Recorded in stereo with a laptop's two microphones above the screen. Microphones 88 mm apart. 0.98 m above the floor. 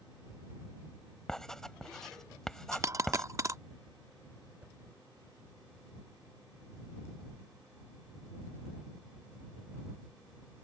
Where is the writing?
5° left (ahead or behind).